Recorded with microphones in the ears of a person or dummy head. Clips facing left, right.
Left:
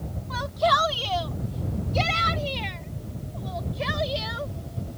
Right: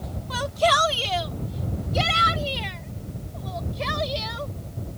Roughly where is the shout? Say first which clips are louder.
Right 2 dB; right.